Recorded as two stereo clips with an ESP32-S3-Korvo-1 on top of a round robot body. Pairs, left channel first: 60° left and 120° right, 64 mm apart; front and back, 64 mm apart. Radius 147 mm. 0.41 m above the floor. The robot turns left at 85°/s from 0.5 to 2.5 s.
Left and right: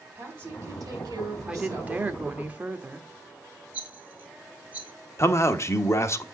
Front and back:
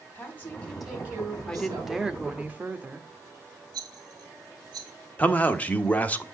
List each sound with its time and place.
0.1 s a woman speaking: 65° right, 3.5 m; by 2.0 s 165° left, 3.5 m
1.5 s a woman speaking: 65° right, 1.1 m; by 3.1 s 150° right, 1.1 m
3.7 s a rattle: 170° left, 1.9 m
5.2 s a man speaking: 55° left, 1.1 m